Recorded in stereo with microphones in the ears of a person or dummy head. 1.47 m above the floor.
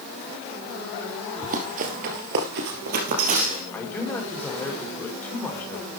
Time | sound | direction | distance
1.4 | running footsteps | 35° right (ahead or behind) | 2.5 m
3.7 | a man speaking | centre (ahead or behind) | 4.5 m